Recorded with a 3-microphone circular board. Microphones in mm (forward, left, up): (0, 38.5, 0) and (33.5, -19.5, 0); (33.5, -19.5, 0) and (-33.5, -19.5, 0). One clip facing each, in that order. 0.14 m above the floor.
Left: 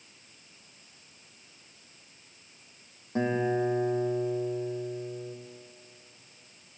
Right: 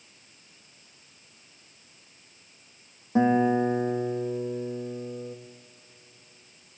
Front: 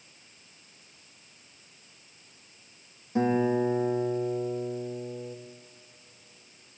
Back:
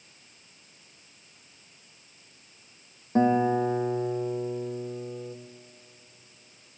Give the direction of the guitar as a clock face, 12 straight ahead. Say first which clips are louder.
Right 6 dB, back 2 dB; 4 o'clock.